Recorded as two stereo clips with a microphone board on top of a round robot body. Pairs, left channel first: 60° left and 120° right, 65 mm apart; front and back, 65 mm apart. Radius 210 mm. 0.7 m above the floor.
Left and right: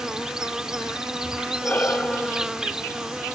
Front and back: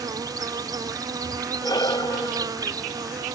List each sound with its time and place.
0.0 s an insect: 160° left
1.6 s breathing: 5° right